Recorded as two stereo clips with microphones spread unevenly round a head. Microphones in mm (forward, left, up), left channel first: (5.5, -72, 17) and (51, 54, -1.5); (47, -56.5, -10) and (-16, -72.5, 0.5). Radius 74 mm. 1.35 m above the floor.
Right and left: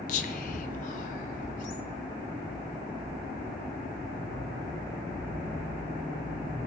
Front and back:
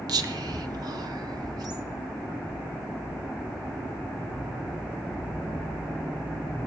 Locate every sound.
0.1 s whispering: 155° right, 1.1 m